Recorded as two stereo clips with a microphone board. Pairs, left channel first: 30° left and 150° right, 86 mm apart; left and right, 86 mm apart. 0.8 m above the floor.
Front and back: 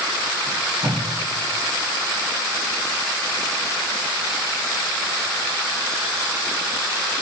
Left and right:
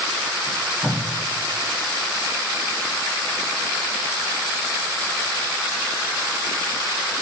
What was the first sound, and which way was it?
Tape being pulled, 165° right.